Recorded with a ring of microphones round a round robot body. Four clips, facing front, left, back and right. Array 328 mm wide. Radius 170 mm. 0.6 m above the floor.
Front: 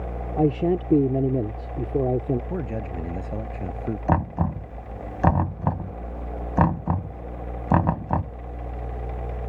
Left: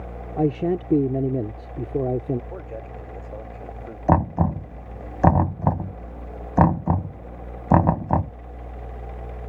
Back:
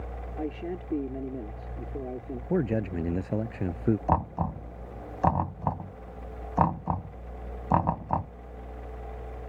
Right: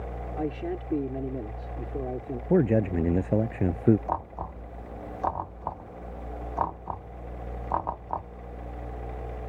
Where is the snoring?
No snoring in this recording.